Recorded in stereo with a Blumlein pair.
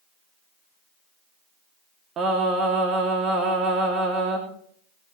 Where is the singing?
25° right, 3 m.